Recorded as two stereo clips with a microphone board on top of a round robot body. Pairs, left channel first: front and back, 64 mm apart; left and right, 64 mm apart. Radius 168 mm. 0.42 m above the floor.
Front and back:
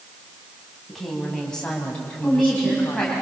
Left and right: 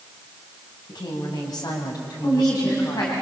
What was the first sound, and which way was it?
A woman speaking, 90° left.